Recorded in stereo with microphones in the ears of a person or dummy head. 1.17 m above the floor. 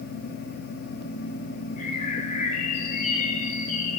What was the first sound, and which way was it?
A bird, 45° left (ahead or behind).